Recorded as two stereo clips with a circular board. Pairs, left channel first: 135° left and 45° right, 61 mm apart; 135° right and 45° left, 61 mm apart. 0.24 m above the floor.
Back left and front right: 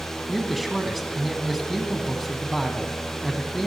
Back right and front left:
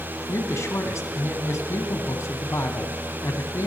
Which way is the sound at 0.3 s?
130° right.